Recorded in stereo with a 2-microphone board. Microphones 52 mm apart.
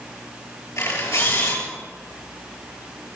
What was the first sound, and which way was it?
A camera shutter, 70° left (ahead or behind).